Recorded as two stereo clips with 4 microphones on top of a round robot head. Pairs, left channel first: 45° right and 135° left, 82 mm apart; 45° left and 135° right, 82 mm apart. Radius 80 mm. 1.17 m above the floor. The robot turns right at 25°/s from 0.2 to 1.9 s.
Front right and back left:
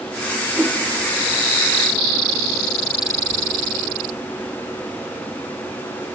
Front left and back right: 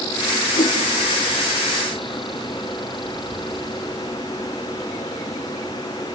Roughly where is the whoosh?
Ahead left.